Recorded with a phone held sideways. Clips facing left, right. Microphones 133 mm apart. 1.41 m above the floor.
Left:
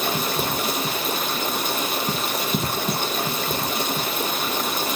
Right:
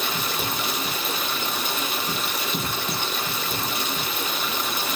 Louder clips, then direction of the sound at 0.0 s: Left 4 dB; 45° left (ahead or behind).